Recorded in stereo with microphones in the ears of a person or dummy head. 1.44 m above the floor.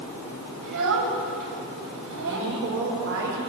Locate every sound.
0.6 s a child speaking: 70° right (ahead or behind), 5.5 m
2.3 s a woman speaking: 70° right (ahead or behind), 5.5 m